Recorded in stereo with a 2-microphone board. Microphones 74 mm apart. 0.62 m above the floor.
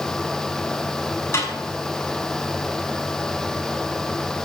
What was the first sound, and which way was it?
A snare drum, 35° left (ahead or behind).